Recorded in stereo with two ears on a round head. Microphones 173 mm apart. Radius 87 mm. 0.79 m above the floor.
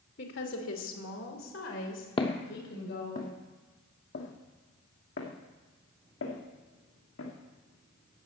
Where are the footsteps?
25° left (ahead or behind), 1.4 m; by 8.2 s 75° left (ahead or behind), 4 m.